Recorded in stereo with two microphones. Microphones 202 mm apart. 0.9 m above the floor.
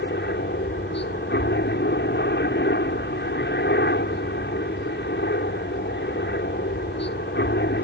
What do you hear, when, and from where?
0.0 s a helicopter: 60° left (ahead or behind)